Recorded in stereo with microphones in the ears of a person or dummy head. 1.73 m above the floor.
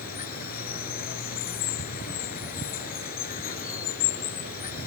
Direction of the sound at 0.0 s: 50° left (ahead or behind).